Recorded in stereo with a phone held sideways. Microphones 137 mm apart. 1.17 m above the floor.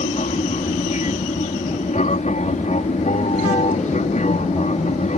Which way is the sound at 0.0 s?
60° left (ahead or behind).